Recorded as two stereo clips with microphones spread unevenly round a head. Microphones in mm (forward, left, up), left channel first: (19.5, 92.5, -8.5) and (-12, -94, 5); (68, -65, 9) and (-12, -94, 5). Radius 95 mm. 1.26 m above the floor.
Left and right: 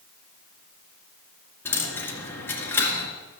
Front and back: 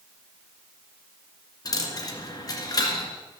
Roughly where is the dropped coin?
Ahead.